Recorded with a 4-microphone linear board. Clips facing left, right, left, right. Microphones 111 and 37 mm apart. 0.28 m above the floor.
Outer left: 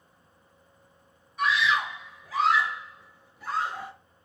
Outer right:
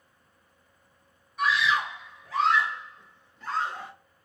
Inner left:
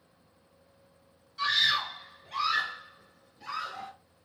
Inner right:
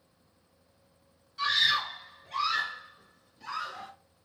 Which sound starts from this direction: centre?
A scream, at 1.4 s.